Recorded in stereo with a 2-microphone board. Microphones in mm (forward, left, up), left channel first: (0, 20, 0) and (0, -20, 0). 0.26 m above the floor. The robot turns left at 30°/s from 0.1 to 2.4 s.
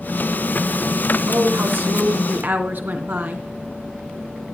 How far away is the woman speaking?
About 3 m.